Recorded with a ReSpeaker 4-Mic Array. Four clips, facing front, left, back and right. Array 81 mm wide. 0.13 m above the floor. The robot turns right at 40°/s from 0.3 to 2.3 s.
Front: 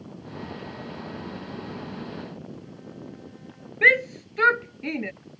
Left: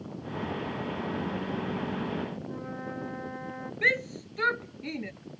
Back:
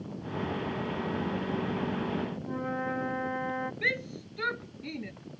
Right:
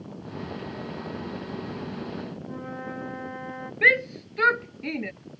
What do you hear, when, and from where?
2.4 s a flute: 170° right
3.8 s a shout: 25° right